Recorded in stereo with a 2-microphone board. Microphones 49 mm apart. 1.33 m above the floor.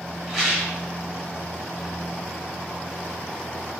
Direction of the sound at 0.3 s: 5° right (ahead or behind).